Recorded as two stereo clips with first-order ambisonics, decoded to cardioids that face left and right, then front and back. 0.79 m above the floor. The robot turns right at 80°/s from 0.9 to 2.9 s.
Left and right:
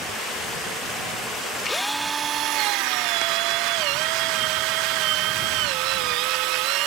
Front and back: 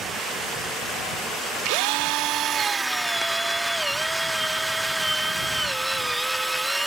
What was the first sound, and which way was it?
A drill, 165° left.